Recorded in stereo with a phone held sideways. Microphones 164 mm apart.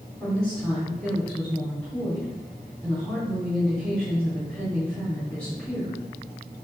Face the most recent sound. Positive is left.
turn(degrees=5)  # may be behind; listen again after turning